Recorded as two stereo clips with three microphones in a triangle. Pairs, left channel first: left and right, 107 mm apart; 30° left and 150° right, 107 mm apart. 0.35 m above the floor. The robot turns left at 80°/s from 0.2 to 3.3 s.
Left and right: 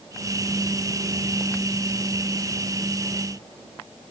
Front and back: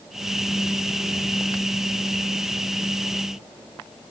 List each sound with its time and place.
Only background noise.